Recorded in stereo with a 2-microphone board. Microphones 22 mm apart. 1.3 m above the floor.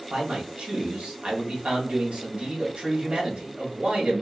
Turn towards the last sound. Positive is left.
turn(degrees=-70)  # may be behind; listen again after turning